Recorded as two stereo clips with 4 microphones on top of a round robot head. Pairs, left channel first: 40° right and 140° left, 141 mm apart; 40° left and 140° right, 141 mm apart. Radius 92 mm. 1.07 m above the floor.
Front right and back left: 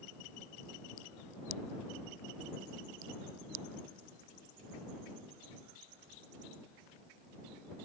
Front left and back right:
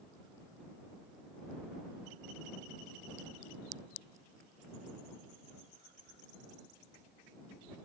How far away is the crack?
I don't hear a crack.